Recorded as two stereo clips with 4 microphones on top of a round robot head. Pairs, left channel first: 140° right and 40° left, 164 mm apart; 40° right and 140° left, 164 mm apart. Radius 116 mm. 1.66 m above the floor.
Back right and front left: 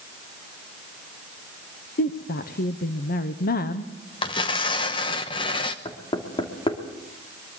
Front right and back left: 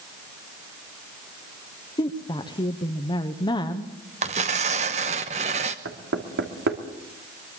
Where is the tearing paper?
170° left, 0.8 m.